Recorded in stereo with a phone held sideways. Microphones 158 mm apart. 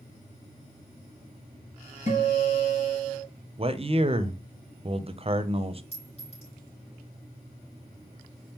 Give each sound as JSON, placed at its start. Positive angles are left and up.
{"t": 2.1, "sound": "a guitar", "side_deg": 45, "distance_m": 4.0}
{"t": 3.6, "sound": "a man speaking", "side_deg": -35, "distance_m": 0.5}
{"t": 5.9, "sound": "a clink", "side_deg": 45, "distance_m": 4.0}